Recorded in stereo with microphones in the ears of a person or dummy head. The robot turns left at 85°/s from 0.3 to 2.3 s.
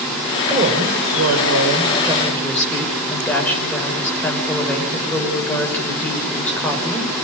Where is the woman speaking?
35° right, 6.5 m; by 7.1 s 170° left, 6.5 m.